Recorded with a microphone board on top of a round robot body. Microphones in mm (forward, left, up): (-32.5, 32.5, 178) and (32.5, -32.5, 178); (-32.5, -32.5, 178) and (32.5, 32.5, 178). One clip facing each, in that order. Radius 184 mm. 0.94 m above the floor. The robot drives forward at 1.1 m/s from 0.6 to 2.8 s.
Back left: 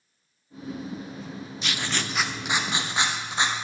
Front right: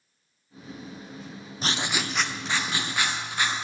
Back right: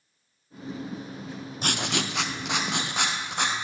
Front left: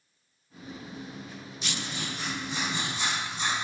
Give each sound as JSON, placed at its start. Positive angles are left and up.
{"t": 1.6, "sound": "writing", "azimuth_deg": -95, "distance_m": 0.6}